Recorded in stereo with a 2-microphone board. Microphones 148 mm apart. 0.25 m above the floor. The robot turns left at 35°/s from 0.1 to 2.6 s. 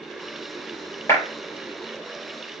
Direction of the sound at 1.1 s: 20° left (ahead or behind).